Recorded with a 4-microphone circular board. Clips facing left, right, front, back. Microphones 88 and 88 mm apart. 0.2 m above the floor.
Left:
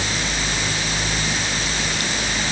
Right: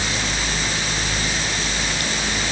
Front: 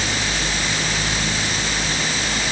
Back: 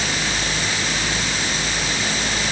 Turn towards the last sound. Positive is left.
No sound to turn to.